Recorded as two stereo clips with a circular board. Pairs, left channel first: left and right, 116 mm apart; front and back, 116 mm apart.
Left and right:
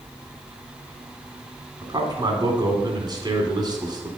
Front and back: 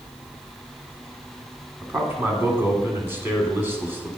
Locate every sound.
1.8 s a man speaking: 120° right, 1.9 m